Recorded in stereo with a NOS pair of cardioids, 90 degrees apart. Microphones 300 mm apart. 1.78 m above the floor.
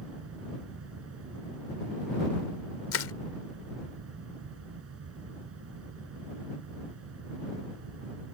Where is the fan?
50° right.